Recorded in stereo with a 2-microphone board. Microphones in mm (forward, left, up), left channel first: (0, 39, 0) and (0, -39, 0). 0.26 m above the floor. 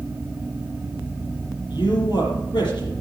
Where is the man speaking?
70° left (ahead or behind), 6 m.